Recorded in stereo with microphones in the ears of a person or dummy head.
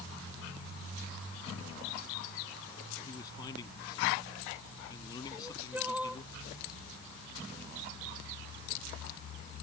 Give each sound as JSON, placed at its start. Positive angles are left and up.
{"t": 3.0, "sound": "a man speaking", "side_deg": 20}
{"t": 5.3, "sound": "crying", "side_deg": -5}